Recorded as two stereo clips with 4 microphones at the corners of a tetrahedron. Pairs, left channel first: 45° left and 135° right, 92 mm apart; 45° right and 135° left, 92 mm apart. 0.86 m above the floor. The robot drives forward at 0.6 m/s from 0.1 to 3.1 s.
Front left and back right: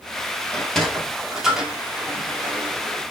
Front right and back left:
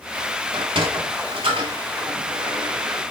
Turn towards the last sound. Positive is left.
turn(degrees=150)